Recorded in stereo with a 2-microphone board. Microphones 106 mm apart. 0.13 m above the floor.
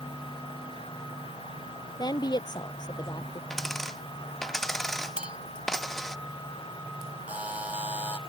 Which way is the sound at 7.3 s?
10° right (ahead or behind).